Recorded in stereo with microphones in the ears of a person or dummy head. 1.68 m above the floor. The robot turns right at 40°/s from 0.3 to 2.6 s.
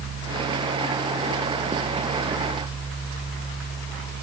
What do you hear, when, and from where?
Only background noise.